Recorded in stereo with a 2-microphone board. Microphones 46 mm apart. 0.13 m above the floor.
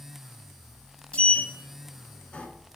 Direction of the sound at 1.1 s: 25° left (ahead or behind).